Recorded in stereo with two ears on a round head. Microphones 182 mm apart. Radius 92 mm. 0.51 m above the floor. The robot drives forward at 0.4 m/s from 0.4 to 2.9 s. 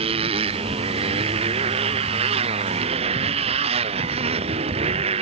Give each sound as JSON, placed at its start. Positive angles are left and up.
{"t": 0.0, "sound": "a motorcycle", "side_deg": -25}